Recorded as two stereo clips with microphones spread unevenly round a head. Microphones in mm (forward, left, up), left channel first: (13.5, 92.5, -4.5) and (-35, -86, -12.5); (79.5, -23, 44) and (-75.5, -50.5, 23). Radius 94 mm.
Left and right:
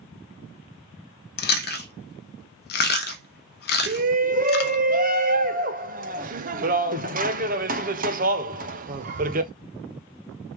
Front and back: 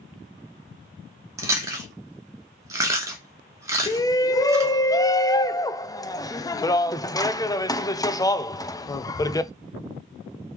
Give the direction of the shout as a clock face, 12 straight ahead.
2 o'clock.